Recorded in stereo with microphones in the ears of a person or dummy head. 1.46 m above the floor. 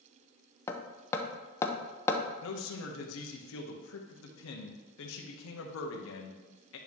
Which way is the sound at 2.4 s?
70° left (ahead or behind).